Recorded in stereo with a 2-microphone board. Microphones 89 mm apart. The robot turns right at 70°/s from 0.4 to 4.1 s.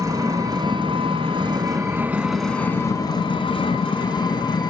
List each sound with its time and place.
0.0 s an engine running: 135° right, 1.8 m; by 4.7 s 120° left, 1.8 m